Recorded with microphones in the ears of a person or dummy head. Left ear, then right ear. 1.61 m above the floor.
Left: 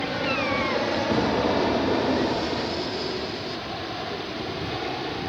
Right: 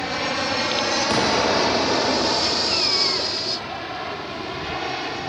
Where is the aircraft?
50° right (ahead or behind).